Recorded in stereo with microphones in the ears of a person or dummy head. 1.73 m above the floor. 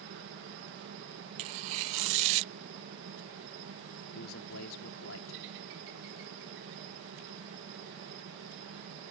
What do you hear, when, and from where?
0.0 s a helicopter: 60° right (ahead or behind)
1.4 s tearing paper: 35° right (ahead or behind)
4.1 s a man speaking: 85° left